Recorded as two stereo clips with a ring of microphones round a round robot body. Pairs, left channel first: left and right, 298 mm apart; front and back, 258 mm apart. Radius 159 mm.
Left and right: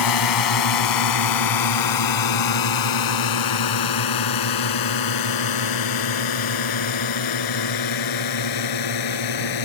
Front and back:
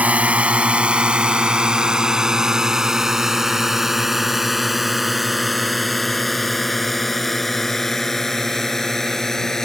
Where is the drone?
95° left; by 9.7 s 90° left.